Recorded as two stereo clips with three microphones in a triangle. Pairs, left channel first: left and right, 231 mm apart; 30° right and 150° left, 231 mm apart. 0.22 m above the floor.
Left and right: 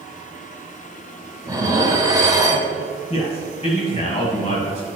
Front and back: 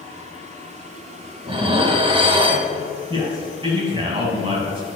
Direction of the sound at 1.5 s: 150° right.